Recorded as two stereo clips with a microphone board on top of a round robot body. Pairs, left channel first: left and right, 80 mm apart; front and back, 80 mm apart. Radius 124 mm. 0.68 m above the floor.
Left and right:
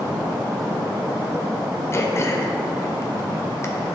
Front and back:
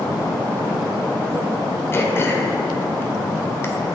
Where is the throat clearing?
50° left, 1.3 m.